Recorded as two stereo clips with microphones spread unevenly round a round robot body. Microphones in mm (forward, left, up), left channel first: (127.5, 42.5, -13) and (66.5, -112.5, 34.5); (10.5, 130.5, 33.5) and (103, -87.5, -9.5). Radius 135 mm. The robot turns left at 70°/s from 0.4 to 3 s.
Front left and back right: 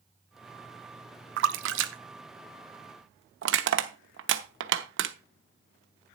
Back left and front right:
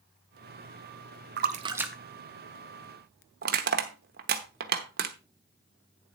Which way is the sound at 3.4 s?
120° right.